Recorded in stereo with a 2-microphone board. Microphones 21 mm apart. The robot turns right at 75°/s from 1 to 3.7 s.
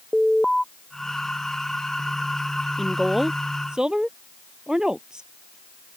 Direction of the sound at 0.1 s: 5° left (ahead or behind).